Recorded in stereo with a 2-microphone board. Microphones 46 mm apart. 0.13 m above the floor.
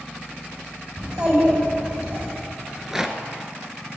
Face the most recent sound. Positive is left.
turn(degrees=-10)  # may be behind; listen again after turning